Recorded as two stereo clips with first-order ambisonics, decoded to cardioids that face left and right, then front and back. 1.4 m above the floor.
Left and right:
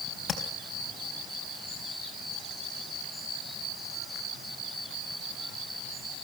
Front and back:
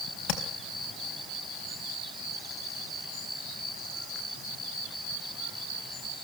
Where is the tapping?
25° left, 4 m.